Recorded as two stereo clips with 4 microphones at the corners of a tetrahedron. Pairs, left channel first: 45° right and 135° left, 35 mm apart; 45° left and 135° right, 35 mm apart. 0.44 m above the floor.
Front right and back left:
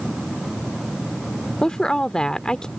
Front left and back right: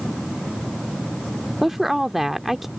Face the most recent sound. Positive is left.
turn(degrees=-60)